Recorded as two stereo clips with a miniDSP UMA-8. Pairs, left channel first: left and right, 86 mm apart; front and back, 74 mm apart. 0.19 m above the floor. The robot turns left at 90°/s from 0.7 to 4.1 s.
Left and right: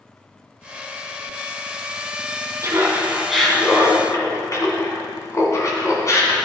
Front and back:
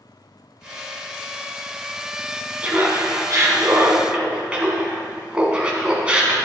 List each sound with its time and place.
2.6 s laughter: 115° right, 1.9 m; by 6.3 s 110° left, 1.9 m